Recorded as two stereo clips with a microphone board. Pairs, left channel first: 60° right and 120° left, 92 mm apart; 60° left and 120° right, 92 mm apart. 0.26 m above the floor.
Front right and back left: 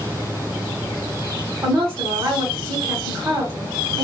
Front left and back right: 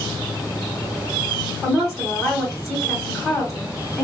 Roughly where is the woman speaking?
Behind left.